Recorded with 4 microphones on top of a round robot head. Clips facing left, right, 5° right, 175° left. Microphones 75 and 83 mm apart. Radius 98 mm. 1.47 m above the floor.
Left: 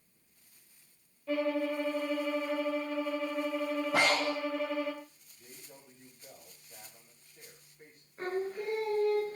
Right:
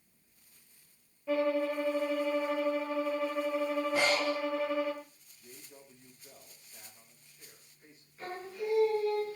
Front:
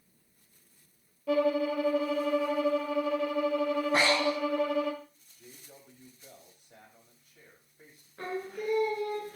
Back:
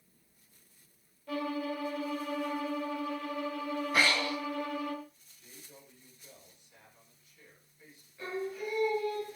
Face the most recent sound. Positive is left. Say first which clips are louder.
# left 4 dB, front 1 dB
turn(degrees=30)